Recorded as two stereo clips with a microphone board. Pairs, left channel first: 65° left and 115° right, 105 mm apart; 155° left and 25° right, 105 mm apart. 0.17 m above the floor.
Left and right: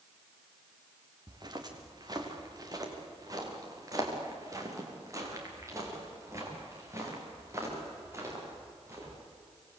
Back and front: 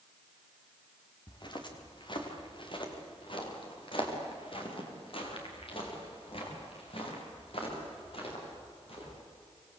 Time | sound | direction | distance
1.3 | footsteps | 160° right | 4 m